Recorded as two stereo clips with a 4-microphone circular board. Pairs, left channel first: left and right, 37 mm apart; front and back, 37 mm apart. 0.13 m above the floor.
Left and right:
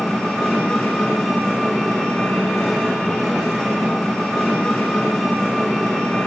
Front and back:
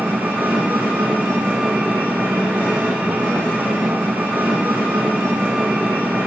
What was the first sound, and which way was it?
An engine running, 175° left.